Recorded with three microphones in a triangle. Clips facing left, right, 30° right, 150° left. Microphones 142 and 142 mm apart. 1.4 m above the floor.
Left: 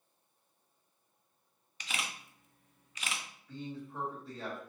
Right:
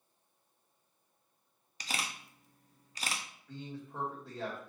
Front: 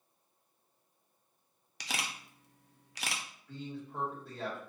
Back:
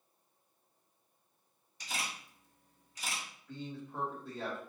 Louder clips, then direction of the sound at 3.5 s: Left 2 dB, front 1 dB; 125° right.